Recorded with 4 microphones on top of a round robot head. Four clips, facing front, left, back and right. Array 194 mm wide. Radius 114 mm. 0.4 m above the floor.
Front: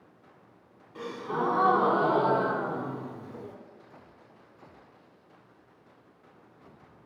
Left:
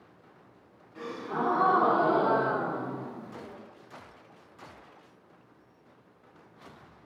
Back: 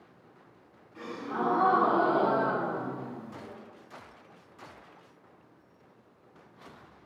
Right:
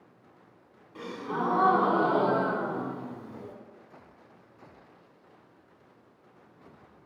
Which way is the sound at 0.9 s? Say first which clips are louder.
Even, front 2 dB; 45° right.